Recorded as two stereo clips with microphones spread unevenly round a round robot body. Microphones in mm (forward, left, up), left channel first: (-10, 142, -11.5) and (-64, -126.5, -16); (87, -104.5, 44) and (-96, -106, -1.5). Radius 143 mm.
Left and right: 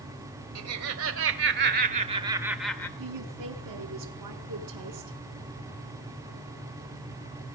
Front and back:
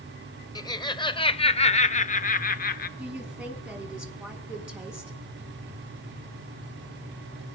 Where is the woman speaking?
100° right, 5 m.